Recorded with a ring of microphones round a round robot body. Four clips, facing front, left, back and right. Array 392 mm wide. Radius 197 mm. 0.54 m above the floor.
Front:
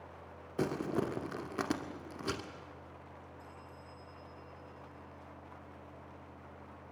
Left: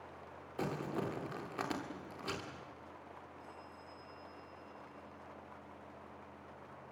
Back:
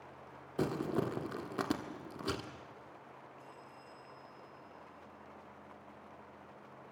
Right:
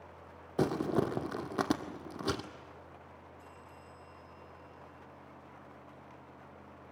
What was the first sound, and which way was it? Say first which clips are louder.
Crumpling: right 8 dB, even; 90° right.